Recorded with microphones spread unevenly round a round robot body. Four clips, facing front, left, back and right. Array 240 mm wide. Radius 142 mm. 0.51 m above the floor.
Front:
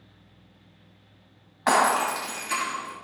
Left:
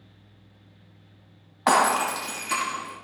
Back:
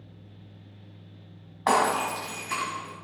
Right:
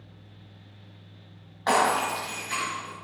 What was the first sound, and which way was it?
Breaking glass, 115° left.